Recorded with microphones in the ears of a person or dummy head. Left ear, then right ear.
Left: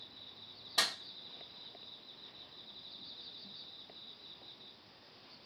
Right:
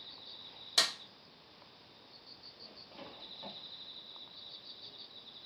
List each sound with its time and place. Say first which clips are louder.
0.8 s a clap: right 3 dB; 65° right (ahead or behind), 2.5 m